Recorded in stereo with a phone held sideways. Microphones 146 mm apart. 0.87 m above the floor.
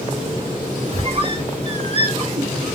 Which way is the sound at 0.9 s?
40° right (ahead or behind).